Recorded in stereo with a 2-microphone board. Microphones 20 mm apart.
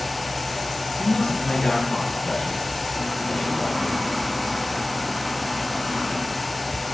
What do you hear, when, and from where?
1.0 s a man speaking: 50° left (ahead or behind), 7.5 m; by 4.0 s 60° left (ahead or behind), 9 m